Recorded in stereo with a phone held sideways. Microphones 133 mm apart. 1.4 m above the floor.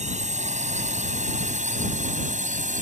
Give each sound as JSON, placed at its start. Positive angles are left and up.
{"t": 0.0, "sound": "a drone", "side_deg": -60}